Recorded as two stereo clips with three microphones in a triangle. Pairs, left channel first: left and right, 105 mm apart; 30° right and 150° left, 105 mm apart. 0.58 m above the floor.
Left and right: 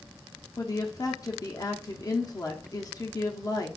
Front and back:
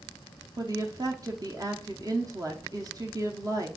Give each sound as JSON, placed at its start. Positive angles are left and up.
{"t": 0.6, "sound": "a woman speaking", "azimuth_deg": 120, "distance_m": 0.8}